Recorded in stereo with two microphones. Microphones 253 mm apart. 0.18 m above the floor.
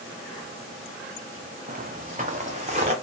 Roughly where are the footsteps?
Right.